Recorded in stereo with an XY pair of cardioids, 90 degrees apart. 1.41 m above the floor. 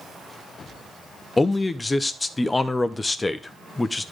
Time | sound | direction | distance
1.4 | a man speaking | 25° left | 0.7 m